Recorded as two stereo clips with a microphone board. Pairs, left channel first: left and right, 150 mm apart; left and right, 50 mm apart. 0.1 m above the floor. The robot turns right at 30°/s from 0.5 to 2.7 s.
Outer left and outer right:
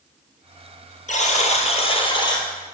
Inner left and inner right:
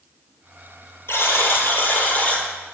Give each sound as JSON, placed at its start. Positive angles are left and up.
{"t": 1.1, "sound": "a buzzer", "azimuth_deg": 110, "distance_m": 1.3}